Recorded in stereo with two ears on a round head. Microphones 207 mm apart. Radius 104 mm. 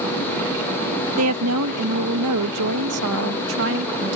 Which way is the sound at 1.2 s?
70° right (ahead or behind).